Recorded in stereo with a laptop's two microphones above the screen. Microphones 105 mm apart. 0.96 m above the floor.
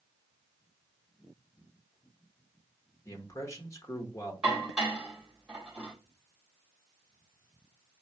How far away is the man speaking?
About 0.9 m.